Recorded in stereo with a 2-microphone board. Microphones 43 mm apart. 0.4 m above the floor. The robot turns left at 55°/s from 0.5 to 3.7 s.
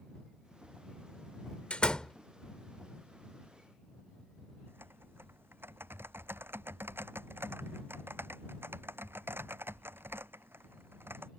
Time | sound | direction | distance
1.7 | a door slam | 30° left (ahead or behind) | ?
4.7 | typing on a keyboard | 65° right (ahead or behind) | ?